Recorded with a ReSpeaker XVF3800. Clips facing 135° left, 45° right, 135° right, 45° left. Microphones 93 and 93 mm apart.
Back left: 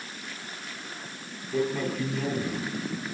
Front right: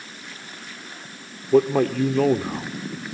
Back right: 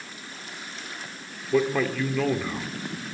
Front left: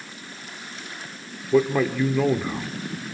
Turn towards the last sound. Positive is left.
turn(degrees=-35)